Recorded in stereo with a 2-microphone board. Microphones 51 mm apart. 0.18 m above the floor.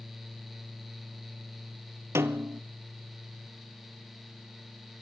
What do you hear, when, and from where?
2.1 s a snare drum: 60° right (ahead or behind), 1.2 m